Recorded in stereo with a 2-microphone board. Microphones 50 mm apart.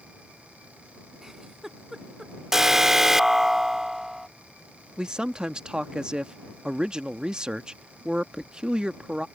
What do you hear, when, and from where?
1.2 s a giggle: 5° right (ahead or behind)
2.5 s an alarm: 10° right (ahead or behind)
5.0 s a man speaking: 20° right (ahead or behind)